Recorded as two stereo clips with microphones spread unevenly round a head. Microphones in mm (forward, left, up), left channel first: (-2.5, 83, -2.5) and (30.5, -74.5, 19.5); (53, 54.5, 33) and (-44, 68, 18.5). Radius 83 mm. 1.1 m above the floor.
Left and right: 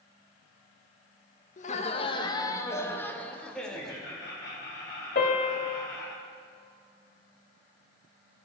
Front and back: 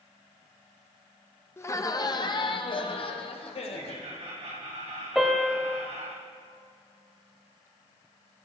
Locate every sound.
1.6 s laughter: 60° left, 0.8 m; by 4.0 s 15° left, 1.8 m
3.7 s laughter: 170° left, 3 m
5.2 s a piano: 80° left, 1.2 m